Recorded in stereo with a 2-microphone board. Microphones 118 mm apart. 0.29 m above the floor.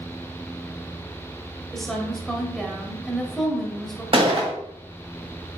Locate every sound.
1.7 s a woman speaking: centre (ahead or behind), 0.9 m
4.1 s a gunshot: 50° right (ahead or behind), 1.0 m